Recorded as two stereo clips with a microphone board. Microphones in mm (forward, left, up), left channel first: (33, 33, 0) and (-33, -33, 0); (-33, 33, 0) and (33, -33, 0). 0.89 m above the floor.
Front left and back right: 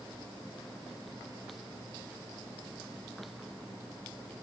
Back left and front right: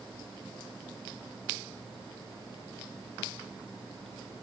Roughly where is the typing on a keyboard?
No typing on a keyboard in this recording.